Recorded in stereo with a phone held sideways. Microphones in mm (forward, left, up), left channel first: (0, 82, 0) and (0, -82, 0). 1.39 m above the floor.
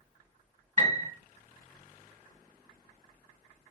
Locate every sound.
0.8 s a piano: 45° right (ahead or behind), 1.7 m